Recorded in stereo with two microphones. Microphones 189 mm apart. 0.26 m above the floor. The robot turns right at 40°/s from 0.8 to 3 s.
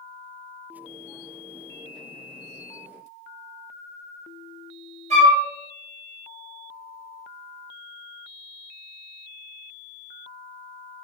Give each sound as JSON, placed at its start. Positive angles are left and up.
{"t": 5.1, "sound": "a flute", "side_deg": -35, "distance_m": 1.2}